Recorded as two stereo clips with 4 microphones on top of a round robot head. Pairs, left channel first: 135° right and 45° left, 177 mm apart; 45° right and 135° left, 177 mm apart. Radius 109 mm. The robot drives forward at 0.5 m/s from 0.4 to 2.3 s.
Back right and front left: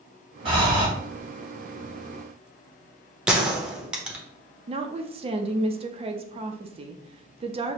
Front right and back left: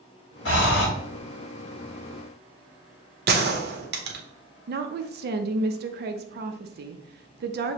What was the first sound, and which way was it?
Breathing, 15° right.